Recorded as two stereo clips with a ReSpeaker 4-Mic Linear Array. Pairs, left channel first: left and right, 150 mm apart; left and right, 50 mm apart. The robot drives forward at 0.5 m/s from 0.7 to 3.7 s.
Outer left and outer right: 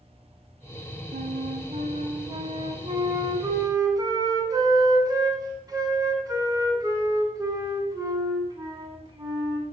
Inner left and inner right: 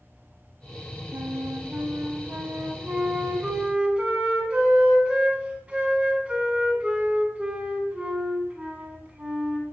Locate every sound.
1.1 s a flute: 60° right (ahead or behind), 0.9 m; by 9.6 s 25° right (ahead or behind), 1.8 m